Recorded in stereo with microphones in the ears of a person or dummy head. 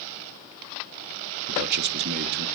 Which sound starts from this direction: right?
A man speaking, at 1.5 s.